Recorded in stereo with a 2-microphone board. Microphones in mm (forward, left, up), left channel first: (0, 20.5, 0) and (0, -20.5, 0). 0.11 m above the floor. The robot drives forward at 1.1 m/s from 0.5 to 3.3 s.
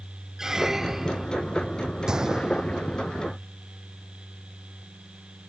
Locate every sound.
0.4 s a squeak: 15° right (ahead or behind); by 1.3 s 10° right (ahead or behind)
2.1 s a gunshot: 15° right (ahead or behind); by 3.1 s 20° right (ahead or behind)